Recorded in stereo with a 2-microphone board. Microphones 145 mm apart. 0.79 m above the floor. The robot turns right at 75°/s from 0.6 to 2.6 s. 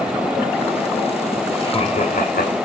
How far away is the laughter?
About 4 m.